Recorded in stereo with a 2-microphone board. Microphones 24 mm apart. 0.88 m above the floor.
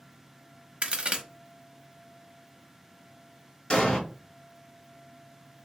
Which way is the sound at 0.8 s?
40° right (ahead or behind).